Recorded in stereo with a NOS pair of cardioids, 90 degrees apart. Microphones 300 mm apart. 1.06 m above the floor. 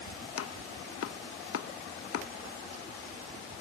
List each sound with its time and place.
0.4 s chopping: 55° left, 1.0 m